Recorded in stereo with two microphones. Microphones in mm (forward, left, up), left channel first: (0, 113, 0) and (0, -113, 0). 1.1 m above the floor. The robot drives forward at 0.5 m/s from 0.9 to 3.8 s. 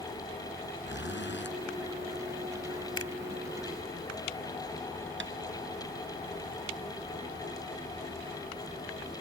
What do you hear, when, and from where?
0.8 s a zipper: 55° left (ahead or behind)
3.0 s a finger snap: 85° left; by 3.1 s 80° left
5.2 s tapping: 55° right (ahead or behind)